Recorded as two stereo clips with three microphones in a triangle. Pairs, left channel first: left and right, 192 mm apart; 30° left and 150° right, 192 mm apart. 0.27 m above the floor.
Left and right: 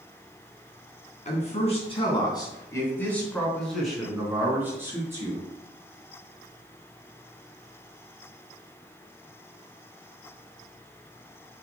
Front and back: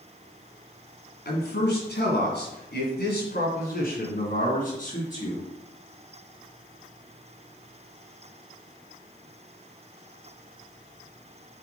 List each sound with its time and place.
1.2 s a man speaking: 45° left, 3 m; by 5.5 s 20° right, 4 m